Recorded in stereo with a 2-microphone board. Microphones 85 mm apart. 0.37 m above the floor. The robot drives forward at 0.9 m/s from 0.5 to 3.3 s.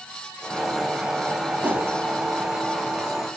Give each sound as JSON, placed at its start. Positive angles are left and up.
{"t": 1.6, "sound": "a whoosh", "side_deg": -20, "distance_m": 1.1}